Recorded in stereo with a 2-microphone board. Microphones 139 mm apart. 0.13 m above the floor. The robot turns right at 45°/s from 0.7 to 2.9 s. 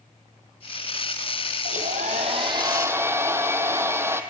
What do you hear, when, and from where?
1.6 s a hair dryer: 75° right, 1.3 m; by 4.2 s 15° right, 1.3 m